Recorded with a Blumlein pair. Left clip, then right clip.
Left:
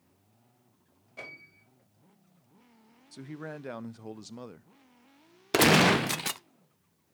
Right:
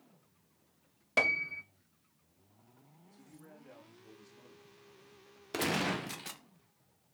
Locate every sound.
1.2 s a piano: 40° right, 0.8 m
3.1 s a man speaking: 40° left, 0.5 m
5.5 s a gunshot: 35° left, 0.5 m